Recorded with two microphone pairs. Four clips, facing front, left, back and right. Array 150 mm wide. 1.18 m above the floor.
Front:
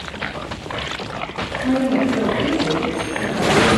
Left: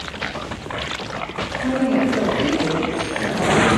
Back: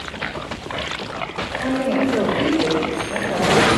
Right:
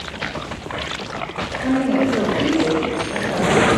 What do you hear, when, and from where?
1.6 s a woman speaking: 165° right, 5 m; by 3.8 s 150° right, 5 m